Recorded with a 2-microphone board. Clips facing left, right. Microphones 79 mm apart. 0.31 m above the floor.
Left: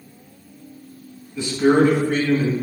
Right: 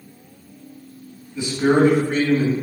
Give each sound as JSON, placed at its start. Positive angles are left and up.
{"t": 1.4, "sound": "a man speaking", "side_deg": -10, "distance_m": 1.5}